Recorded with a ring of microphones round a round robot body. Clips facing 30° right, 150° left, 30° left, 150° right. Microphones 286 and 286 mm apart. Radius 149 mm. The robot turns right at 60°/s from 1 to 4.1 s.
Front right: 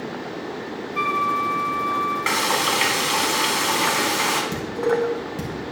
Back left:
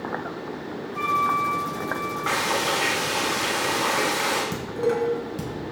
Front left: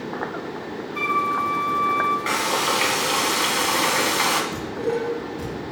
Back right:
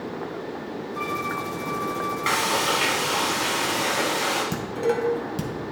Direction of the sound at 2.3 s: 75° right.